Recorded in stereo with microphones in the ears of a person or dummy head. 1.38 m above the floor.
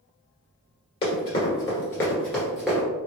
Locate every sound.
1.0 s running footsteps: 30° left (ahead or behind), 1.6 m; by 2.9 s 5° right (ahead or behind), 1.3 m